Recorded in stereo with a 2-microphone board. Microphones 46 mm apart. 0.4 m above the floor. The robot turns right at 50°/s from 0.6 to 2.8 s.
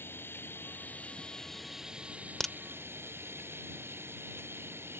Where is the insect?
125° left; by 5.0 s 125° right.